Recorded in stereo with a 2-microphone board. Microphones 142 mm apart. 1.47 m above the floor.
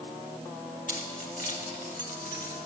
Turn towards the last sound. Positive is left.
turn(degrees=85)